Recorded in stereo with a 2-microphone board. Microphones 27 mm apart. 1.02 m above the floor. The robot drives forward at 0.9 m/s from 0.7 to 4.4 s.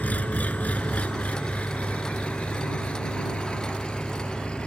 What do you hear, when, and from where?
0.0 s an engine running: 65° left (ahead or behind); by 4.7 s 40° left (ahead or behind)